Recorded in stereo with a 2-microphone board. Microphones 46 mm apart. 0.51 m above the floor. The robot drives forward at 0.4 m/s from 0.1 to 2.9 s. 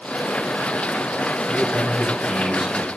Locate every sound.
1.5 s a man speaking: 10° right (ahead or behind), 3 m; by 2.9 s 5° right (ahead or behind), 3.5 m